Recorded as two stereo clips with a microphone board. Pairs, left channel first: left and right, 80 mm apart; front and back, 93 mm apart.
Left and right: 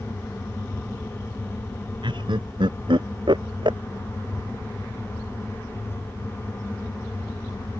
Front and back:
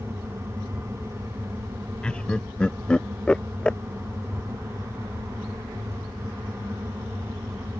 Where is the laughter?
80° right.